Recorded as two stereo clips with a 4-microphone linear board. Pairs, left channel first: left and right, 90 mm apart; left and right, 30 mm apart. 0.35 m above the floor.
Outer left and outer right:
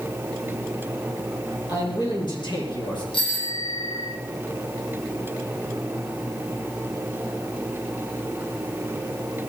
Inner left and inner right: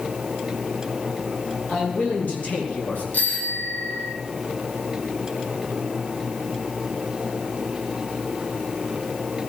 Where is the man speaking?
50° left (ahead or behind), 8 m; by 3.0 s 65° left (ahead or behind), 7.5 m.